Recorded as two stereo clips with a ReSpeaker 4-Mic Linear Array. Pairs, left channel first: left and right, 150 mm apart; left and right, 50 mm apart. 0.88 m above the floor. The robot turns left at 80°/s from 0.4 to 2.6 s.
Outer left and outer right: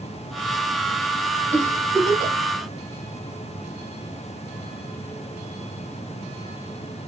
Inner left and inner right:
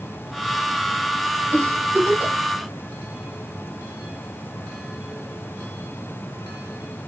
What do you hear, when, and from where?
1.5 s a giggle: 55° right (ahead or behind), 1.3 m; by 2.4 s 25° right (ahead or behind), 1.3 m